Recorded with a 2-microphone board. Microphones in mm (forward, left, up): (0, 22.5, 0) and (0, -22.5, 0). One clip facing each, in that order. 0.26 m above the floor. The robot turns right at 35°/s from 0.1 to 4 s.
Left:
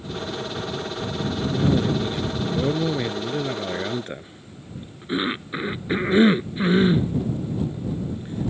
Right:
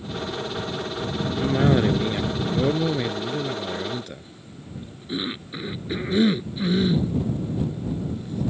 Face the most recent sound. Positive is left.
turn(degrees=35)  # may be behind; listen again after turning